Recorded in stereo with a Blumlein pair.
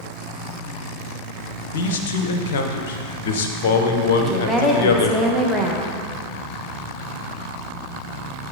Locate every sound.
1.7 s a man speaking: 55° left, 0.8 m
4.2 s a woman speaking: straight ahead, 1.1 m